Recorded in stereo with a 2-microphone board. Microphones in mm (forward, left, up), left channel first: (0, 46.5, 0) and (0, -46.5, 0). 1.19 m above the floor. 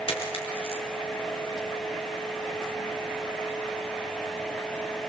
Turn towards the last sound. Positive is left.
turn(degrees=80)